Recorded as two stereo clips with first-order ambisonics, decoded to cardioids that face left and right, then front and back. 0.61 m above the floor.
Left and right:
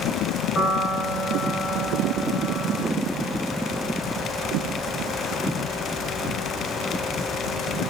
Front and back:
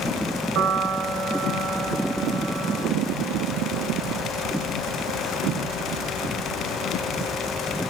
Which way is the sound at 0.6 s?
145° left.